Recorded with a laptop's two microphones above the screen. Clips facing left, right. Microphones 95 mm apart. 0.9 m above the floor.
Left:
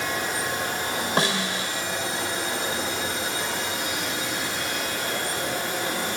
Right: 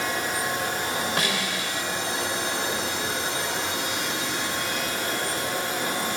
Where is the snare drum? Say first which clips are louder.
Left 3 dB; 30° left (ahead or behind), 3.5 m.